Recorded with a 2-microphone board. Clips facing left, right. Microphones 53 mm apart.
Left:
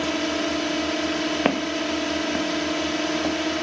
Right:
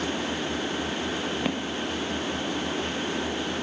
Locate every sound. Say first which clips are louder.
0.0 s a drone: left 5 dB; 70° left (ahead or behind)
1.4 s footsteps: left 6 dB; 40° left (ahead or behind); by 3.4 s 45° left (ahead or behind)